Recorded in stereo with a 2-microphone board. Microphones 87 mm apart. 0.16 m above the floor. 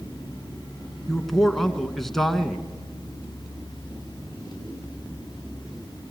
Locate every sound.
1.1 s a man speaking: 5° left (ahead or behind), 2 m